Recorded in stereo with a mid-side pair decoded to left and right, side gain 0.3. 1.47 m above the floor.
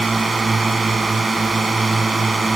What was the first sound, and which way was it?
A drone, 55° right.